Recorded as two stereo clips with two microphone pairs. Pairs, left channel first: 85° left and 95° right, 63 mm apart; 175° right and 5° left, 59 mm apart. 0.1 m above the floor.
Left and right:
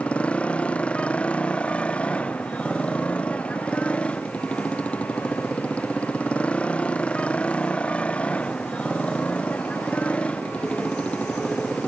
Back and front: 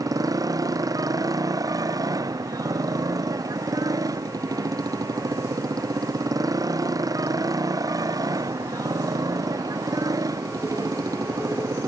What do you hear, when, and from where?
0.0 s a motorcycle: 15° left